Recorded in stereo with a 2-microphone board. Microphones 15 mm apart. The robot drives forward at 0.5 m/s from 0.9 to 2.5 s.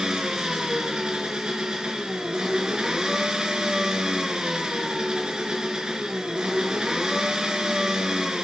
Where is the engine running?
70° right (ahead or behind), 3 m.